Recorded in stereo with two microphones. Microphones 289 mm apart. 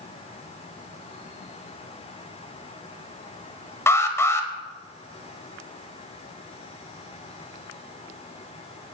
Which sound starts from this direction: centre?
An alarm, at 3.9 s.